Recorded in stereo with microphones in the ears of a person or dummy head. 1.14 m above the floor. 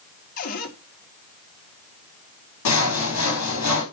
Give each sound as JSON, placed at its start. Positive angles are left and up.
{"t": 0.4, "sound": "a cupboard door", "side_deg": 45, "distance_m": 2.5}
{"t": 2.6, "sound": "sawing", "side_deg": 80, "distance_m": 4.0}